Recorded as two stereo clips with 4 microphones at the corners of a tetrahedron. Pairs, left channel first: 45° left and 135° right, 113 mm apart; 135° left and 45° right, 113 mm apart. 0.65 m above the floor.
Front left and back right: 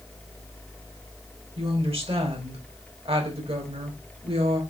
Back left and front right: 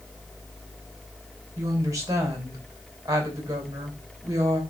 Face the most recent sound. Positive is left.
turn(degrees=-105)